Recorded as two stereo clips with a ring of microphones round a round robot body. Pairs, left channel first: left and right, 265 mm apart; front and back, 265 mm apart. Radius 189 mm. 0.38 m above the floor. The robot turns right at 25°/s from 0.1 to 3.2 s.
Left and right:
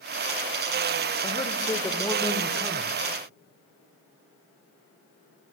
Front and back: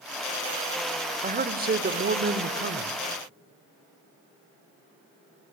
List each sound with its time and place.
1.2 s a man speaking: 145° left, 1.1 m; by 3.0 s 170° right, 1.1 m